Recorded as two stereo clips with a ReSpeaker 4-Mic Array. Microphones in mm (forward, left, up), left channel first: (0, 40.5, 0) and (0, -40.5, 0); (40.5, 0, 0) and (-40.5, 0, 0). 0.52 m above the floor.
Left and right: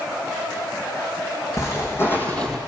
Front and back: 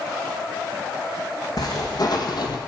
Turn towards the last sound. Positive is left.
turn(degrees=0)